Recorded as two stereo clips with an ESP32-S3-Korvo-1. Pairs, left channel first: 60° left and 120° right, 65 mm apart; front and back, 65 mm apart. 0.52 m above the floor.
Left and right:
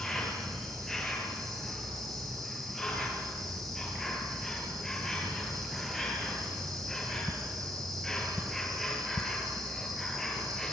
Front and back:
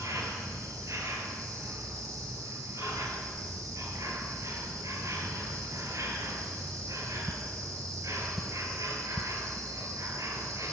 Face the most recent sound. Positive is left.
turn(degrees=150)